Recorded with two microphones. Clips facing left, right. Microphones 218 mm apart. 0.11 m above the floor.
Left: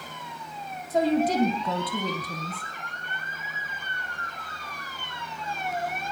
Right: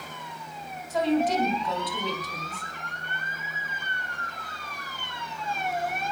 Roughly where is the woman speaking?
Left.